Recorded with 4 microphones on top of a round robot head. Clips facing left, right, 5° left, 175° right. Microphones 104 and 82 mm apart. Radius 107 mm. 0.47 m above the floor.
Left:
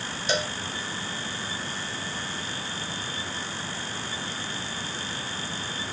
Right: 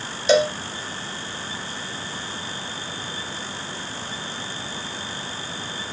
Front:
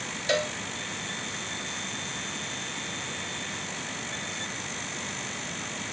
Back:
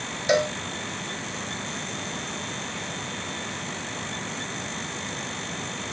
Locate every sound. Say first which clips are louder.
0.3 s a cowbell: right 12 dB, back 6 dB; 100° right